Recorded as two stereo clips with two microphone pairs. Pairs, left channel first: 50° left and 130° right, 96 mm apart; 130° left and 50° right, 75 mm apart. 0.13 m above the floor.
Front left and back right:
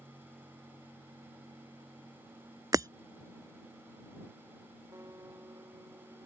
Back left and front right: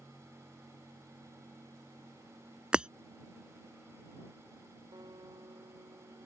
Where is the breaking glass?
125° right.